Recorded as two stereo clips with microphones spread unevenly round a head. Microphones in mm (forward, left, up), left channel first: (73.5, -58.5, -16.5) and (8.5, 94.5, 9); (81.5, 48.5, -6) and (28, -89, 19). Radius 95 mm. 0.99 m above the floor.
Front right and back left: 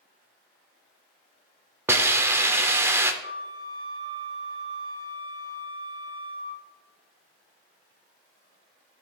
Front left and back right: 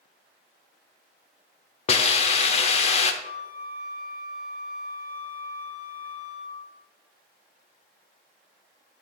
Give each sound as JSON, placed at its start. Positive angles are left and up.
{"t": 1.9, "sound": "a hiss", "azimuth_deg": 70, "distance_m": 0.6}
{"t": 3.2, "sound": "a flute", "azimuth_deg": 55, "distance_m": 2.0}